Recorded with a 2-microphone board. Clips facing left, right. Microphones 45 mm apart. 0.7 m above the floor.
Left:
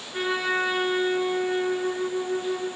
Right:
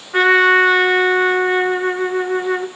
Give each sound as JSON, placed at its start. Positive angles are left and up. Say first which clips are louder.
{"t": 0.1, "sound": "a trumpet", "louder": "right 14 dB", "side_deg": -70, "distance_m": 1.0}